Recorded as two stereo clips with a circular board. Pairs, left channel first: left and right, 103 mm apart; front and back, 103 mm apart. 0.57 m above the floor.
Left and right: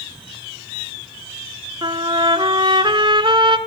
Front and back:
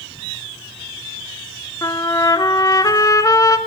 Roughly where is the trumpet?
Ahead right.